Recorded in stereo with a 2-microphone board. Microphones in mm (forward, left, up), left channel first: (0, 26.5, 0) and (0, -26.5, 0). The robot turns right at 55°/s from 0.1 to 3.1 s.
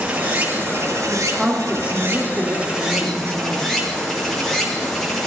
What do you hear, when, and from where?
0.0 s running water: 155° right, 4 m; by 5.3 s 10° left, 4 m
1.1 s a woman speaking: 170° left, 2.5 m; by 3.7 s 80° right, 2.5 m